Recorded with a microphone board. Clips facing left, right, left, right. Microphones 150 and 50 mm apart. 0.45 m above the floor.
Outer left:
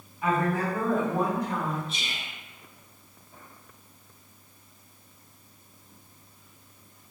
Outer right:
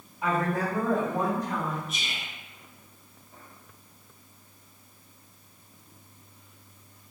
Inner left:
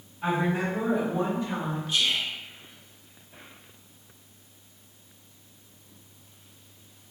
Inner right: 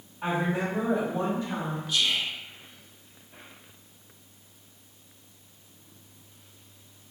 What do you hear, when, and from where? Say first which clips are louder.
0.2 s a woman speaking: outer left 1 dB, inner left 1 dB; 35° right (ahead or behind), 1.3 m; by 1.8 s 30° left (ahead or behind), 1.7 m
1.9 s whispering: even, even; 30° left (ahead or behind), 0.8 m